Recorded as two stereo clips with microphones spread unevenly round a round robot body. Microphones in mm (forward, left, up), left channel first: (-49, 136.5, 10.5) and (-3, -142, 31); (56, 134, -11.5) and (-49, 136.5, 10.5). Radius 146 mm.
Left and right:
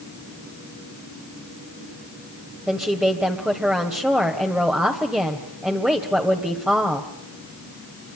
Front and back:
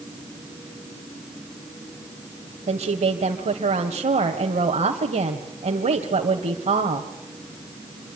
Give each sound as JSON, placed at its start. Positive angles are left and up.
{"t": 2.7, "sound": "a woman speaking", "azimuth_deg": -165, "distance_m": 1.8}